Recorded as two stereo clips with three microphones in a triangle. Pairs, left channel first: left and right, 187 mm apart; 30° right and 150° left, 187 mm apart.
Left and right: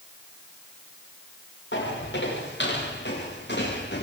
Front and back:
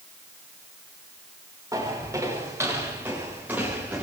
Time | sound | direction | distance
1.7 | footsteps | 75° left | 8 m